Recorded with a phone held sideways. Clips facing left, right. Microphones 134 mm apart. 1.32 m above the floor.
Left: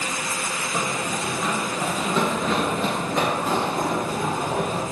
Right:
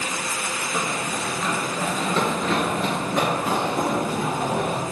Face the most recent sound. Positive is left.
turn(degrees=-5)  # may be behind; listen again after turning